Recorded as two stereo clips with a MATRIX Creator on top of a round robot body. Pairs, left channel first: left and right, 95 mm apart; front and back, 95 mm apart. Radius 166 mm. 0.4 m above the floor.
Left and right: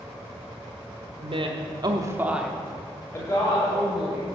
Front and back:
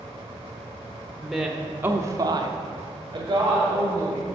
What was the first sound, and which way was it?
A woman speaking, 90° right.